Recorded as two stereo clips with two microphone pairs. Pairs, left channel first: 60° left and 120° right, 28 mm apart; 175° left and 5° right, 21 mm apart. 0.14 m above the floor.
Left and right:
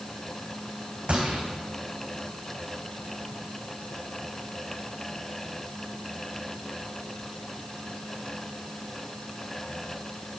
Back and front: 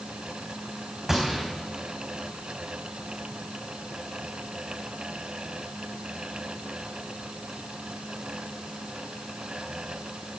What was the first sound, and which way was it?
A gunshot, 70° right.